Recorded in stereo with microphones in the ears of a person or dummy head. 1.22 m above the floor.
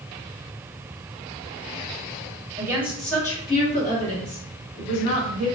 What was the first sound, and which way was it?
A woman speaking, 20° right (ahead or behind).